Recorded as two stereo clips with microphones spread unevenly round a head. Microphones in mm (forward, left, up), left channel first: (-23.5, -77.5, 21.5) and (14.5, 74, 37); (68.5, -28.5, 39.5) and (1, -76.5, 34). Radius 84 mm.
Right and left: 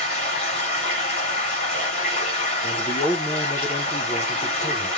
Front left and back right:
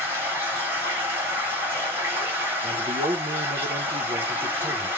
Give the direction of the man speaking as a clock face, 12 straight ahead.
6 o'clock.